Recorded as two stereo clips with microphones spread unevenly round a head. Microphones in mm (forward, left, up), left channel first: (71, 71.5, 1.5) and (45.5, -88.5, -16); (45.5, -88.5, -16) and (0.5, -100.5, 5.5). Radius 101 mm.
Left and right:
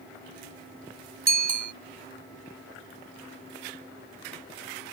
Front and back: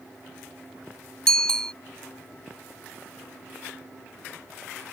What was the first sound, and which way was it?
A bicycle bell, 65° right.